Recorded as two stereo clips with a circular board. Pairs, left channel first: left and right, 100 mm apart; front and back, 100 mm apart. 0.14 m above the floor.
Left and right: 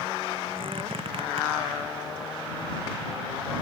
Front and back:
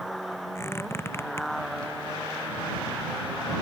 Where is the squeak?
65° right.